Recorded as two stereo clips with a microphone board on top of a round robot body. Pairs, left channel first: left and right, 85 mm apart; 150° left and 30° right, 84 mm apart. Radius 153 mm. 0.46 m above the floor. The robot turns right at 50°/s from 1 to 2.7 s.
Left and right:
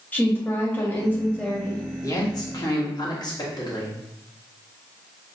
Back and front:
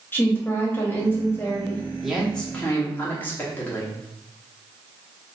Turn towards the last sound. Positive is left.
turn(degrees=90)